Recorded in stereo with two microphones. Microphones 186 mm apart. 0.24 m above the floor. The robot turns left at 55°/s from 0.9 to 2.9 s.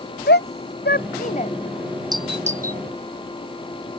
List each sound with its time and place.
0.3 s a shout: 70° left (ahead or behind); by 1.5 s 35° left (ahead or behind)
2.1 s a doorbell: 20° right (ahead or behind); by 2.8 s 60° right (ahead or behind)